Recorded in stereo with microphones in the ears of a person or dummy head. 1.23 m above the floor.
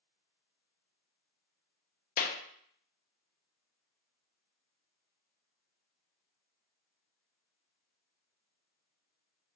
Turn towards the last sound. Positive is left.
turn(degrees=50)  # may be behind; listen again after turning